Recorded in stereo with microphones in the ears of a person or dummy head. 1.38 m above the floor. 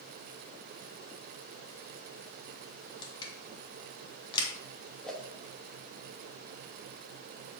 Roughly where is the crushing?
Left.